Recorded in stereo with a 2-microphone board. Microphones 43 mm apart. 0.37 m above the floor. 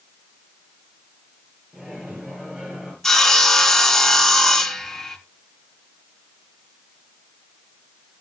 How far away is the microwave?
About 8 m.